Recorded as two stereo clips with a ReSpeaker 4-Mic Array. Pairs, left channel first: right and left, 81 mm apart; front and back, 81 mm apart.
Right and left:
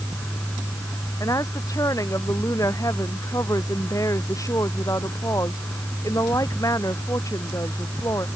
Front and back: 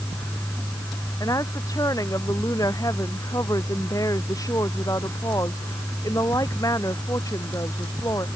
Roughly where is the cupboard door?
No cupboard door in this recording.